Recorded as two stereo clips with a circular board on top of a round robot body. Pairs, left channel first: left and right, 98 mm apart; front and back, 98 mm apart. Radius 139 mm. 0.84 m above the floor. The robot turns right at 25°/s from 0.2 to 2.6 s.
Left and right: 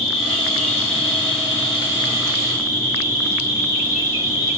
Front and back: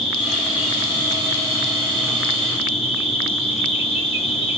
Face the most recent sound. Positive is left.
turn(degrees=155)